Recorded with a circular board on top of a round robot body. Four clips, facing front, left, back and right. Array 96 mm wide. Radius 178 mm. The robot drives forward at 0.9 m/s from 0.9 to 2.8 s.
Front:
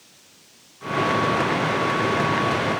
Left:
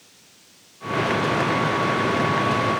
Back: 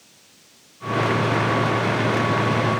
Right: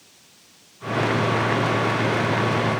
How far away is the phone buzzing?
No phone buzzing in this recording.